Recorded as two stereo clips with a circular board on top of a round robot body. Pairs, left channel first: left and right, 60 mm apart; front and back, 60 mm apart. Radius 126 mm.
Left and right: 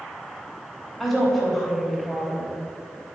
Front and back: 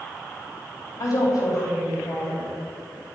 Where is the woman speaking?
5° left, 4 m.